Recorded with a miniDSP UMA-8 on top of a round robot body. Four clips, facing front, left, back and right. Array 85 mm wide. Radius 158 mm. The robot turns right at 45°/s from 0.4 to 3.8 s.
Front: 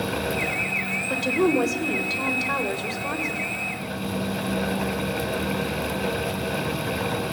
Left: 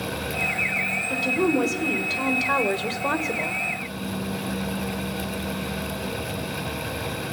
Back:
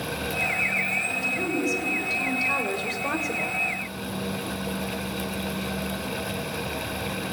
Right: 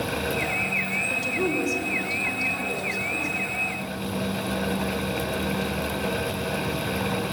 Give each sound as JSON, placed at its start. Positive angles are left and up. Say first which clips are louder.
{"t": 1.1, "sound": "a woman speaking", "louder": "left 5 dB, front 10 dB", "azimuth_deg": 5, "distance_m": 3.0}